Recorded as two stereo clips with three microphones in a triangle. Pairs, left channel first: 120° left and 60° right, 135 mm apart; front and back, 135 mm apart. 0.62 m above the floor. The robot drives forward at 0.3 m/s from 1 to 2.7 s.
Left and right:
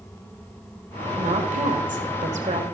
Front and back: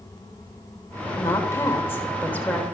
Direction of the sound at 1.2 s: 65° right.